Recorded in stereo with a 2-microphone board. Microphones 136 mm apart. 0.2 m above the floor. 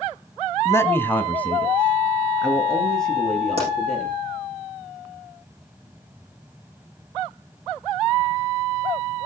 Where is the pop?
45° right (ahead or behind), 9 m.